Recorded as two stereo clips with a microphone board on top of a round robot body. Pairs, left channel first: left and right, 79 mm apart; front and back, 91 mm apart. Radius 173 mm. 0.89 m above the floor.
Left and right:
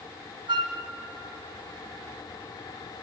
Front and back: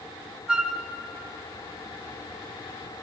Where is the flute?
100° right, 1.3 m.